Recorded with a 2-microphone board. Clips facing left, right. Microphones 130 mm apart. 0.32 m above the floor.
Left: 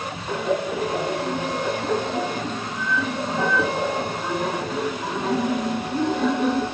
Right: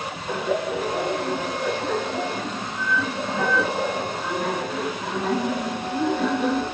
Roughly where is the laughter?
Centre.